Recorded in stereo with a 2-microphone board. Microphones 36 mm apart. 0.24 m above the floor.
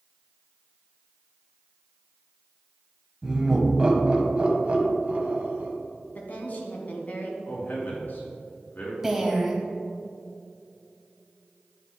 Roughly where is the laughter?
Centre.